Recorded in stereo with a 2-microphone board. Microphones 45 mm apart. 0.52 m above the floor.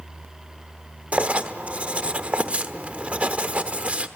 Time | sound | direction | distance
1.1 | writing | 35° right (ahead or behind) | 1.0 m